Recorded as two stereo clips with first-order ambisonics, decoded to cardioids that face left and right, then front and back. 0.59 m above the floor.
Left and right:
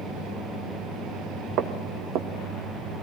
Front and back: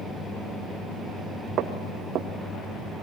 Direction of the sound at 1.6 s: 130° right.